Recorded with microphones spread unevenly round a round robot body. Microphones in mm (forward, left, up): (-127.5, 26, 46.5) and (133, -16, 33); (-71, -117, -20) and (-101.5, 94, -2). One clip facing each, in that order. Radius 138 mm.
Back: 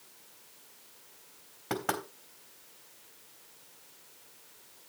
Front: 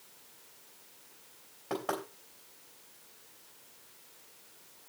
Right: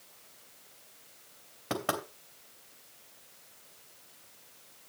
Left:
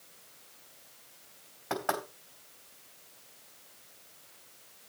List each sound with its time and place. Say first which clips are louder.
1.7 s knocking: back 1 dB, even; 130° right, 3.5 m